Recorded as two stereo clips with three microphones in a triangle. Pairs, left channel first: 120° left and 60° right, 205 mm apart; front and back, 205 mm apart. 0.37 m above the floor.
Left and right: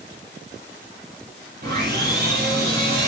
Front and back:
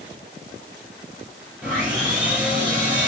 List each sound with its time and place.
1.6 s sawing: 95° right, 5 m